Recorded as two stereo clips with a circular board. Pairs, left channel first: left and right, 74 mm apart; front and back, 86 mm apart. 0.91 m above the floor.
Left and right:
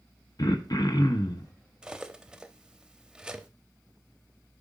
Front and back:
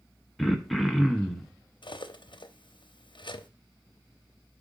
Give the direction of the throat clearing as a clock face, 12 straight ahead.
9 o'clock.